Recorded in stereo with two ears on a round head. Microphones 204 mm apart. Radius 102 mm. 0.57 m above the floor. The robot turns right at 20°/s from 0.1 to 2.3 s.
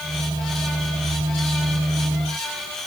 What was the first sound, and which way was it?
Only background noise.